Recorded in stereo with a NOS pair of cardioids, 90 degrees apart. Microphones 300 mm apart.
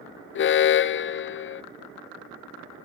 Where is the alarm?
45° left, 0.6 m.